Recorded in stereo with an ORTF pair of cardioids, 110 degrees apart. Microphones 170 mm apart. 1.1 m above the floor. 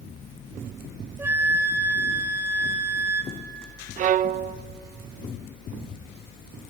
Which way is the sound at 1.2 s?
15° right.